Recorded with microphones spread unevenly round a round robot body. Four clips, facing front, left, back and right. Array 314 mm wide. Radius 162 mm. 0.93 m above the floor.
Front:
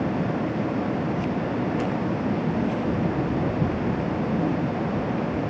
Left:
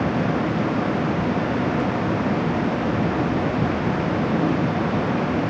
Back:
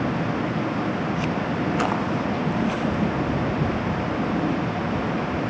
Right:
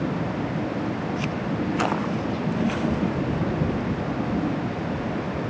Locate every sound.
Only background noise.